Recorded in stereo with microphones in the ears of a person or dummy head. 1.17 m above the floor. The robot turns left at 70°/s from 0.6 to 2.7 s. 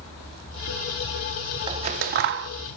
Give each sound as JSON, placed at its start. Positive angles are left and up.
{"t": 1.7, "sound": "scissors", "side_deg": -25, "distance_m": 0.8}